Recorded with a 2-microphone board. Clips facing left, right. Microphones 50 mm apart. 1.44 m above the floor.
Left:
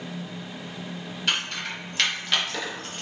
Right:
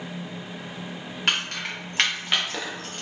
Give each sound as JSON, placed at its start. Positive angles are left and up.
{"t": 1.3, "sound": "keys jangling", "side_deg": -50, "distance_m": 1.0}